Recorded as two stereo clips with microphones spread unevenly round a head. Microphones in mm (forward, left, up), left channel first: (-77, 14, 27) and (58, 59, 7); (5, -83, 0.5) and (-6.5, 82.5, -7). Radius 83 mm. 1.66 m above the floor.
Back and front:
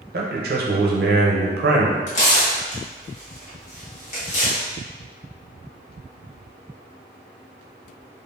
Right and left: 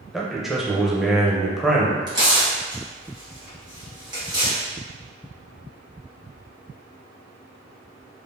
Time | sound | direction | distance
0.1 | a man speaking | 5° left | 0.7 m
2.1 | tearing paper | 160° left | 1.6 m